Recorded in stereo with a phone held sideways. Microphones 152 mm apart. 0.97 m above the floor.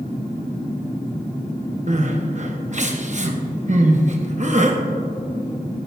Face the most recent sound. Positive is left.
turn(degrees=-50)  # may be behind; listen again after turning